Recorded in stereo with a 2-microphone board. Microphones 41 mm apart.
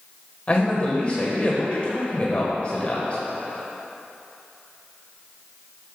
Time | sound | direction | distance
0.5 | a man speaking | 35° left (ahead or behind) | 1.6 m